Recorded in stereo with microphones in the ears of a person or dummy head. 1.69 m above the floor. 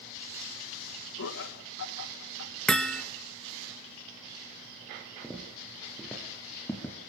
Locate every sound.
1.2 s laughter: 65° left (ahead or behind), 1.4 m
2.7 s hammering: 5° left (ahead or behind), 1.2 m
5.2 s footsteps: centre (ahead or behind), 2.5 m; by 7.0 s 5° left (ahead or behind), 1.9 m